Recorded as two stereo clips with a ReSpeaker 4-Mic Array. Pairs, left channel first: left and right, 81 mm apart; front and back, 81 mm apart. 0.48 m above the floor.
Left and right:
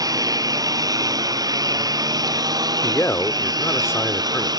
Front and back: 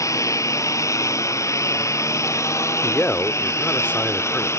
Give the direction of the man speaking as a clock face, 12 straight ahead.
10 o'clock.